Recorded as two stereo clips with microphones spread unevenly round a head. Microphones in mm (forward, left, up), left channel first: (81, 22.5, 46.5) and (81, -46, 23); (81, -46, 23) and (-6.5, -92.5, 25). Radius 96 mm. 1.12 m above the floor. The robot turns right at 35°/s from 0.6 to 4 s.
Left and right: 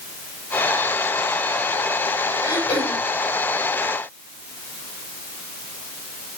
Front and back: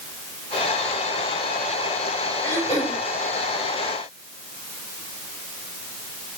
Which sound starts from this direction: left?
Throat clearing, at 2.4 s.